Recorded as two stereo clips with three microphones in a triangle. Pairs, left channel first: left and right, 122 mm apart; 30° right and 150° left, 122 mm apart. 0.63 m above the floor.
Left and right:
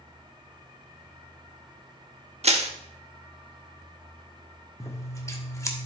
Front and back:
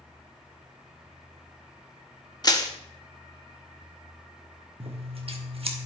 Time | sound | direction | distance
2.4 | crushing | 85° right | 1.0 m
4.8 | scissors | 150° left | 1.1 m